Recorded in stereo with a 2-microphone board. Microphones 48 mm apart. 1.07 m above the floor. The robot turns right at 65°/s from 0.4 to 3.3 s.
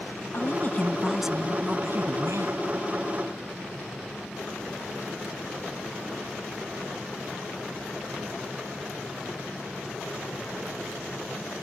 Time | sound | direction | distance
0.3 | a woman speaking | 130° left | ?